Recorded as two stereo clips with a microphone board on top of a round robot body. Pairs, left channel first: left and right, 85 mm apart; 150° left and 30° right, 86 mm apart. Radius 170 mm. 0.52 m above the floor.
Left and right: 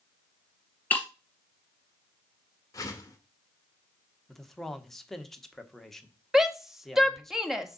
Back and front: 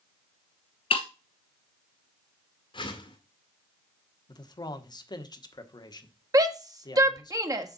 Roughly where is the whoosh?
Behind left.